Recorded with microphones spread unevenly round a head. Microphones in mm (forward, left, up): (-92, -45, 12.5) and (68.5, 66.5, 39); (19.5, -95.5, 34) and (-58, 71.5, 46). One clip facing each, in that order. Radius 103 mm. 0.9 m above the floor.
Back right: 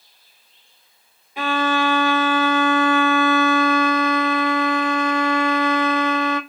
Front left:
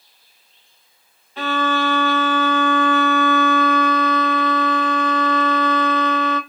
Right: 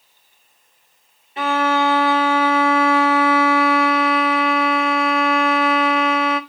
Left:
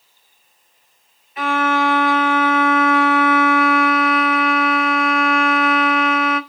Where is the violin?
90° right, 1.0 m.